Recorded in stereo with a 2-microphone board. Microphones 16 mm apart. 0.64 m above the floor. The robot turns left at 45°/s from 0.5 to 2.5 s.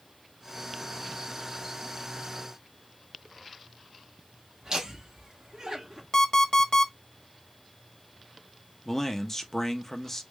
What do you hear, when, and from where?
4.6 s laughter: 50° right (ahead or behind), 1.2 m
6.1 s an alarm clock: 35° left (ahead or behind), 1.0 m
8.8 s a man speaking: 20° left (ahead or behind), 0.8 m